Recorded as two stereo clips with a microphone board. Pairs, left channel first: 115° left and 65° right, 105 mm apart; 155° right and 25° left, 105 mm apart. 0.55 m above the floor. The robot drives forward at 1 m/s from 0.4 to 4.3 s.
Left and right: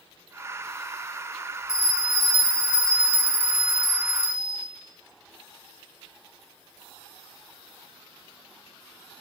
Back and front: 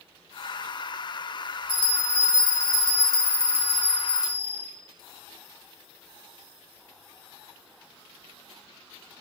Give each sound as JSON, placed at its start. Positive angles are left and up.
{"t": 1.7, "sound": "a bell", "azimuth_deg": 55, "distance_m": 3.0}